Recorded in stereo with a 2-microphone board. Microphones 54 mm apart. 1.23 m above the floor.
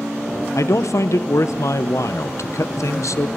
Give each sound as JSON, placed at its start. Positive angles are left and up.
{"t": 0.6, "sound": "a man speaking", "side_deg": 70, "distance_m": 0.6}